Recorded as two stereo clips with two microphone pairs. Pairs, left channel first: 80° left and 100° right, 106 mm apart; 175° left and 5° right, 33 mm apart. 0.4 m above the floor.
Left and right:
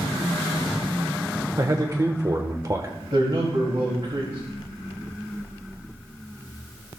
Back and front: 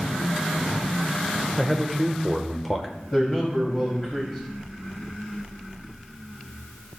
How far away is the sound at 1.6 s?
About 0.9 m.